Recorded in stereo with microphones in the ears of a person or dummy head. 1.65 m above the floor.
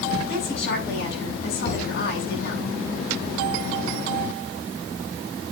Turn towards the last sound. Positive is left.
turn(degrees=70)  # may be behind; listen again after turning